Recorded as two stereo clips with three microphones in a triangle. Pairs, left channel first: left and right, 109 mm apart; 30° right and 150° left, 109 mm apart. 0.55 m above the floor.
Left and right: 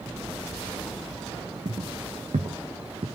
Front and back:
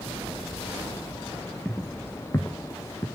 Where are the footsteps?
110° right, 1.9 m; by 3.0 s 85° right, 3 m.